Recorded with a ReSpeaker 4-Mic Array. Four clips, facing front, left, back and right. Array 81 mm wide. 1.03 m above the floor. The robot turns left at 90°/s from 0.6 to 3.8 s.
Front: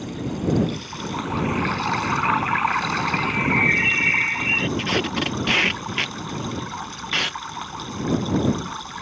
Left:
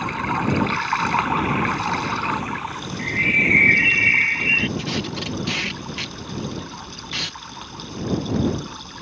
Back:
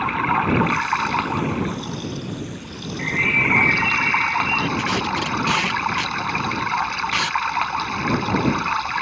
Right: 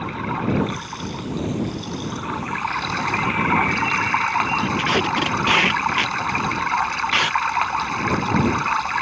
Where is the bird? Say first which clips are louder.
Left 1 dB, even; 155° left; by 4.7 s 80° left.